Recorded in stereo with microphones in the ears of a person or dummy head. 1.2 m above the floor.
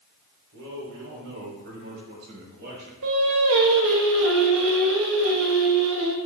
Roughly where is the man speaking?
Right.